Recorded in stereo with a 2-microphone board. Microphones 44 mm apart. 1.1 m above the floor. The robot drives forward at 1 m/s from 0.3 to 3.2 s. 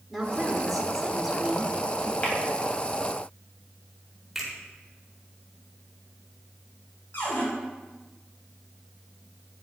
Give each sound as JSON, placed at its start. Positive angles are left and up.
{"t": 0.1, "sound": "a woman speaking", "side_deg": -5, "distance_m": 3.0}
{"t": 2.2, "sound": "tapping", "side_deg": 40, "distance_m": 3.0}
{"t": 4.3, "sound": "a finger snap", "side_deg": -5, "distance_m": 4.0}
{"t": 7.1, "sound": "a cupboard door", "side_deg": 55, "distance_m": 4.5}